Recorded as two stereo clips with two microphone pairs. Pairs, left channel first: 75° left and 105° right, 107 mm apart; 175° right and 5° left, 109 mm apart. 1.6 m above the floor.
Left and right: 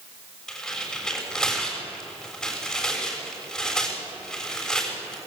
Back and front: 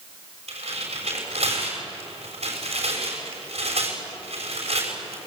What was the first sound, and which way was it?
Tearing paper, 10° right.